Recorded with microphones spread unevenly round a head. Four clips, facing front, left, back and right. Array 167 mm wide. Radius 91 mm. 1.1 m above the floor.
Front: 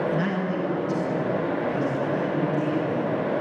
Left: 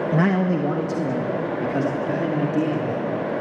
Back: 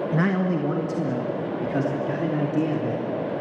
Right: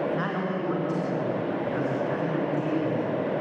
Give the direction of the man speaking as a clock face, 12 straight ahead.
8 o'clock.